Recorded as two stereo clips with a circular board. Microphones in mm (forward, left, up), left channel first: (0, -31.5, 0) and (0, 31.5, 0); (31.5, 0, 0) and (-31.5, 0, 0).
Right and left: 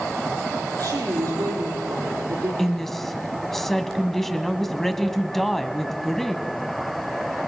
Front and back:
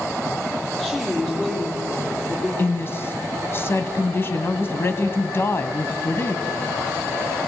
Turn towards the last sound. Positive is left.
turn(degrees=-10)